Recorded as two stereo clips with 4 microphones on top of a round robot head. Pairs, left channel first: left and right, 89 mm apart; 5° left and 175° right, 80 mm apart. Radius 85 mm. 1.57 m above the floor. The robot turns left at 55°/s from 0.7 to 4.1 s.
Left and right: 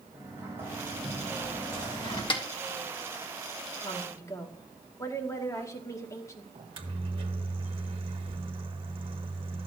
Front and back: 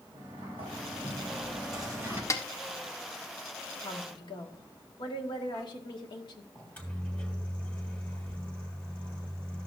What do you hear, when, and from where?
0.1 s a sliding door: 155° right, 4.5 m; by 2.2 s 120° left, 4.5 m
2.3 s a snare drum: 60° left, 1.4 m; by 2.4 s 55° left, 1.4 m
3.8 s a woman speaking: 50° left, 1.6 m; by 6.5 s 35° left, 1.6 m
6.5 s a microwave: 70° right, 1.6 m